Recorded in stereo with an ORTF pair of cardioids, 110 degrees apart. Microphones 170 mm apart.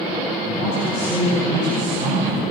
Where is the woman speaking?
50° right, 6 m; by 2.4 s 40° right, 5.5 m.